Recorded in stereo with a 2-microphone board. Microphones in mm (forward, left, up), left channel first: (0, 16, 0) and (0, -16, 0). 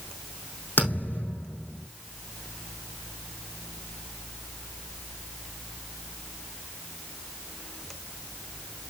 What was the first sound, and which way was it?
A thud, 80° left.